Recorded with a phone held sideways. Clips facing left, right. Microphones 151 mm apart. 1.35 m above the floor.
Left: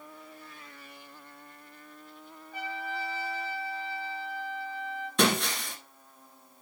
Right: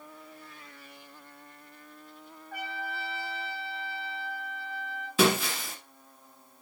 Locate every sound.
2.5 s a trumpet: 70° right (ahead or behind), 5 m
5.2 s breaking glass: 5° right (ahead or behind), 2 m